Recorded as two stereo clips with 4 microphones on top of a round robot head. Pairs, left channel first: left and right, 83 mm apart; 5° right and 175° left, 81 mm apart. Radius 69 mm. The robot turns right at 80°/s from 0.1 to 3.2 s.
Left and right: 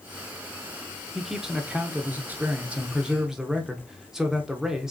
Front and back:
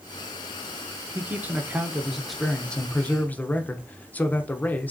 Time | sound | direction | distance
1.1 | a man speaking | 175° left | 0.8 m